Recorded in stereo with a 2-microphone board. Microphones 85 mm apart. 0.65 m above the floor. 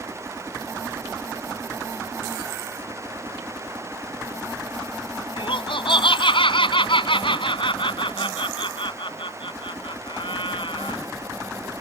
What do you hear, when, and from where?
5.4 s laughter: 80° left